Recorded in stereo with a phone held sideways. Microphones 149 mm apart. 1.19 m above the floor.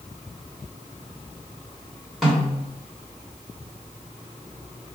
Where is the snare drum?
Centre (ahead or behind), 1.4 m.